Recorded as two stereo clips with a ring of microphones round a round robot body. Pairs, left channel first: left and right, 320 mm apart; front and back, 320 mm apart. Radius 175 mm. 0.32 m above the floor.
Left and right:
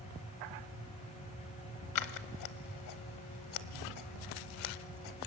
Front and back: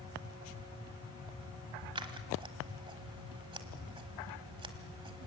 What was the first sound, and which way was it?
Scissors, 105° left.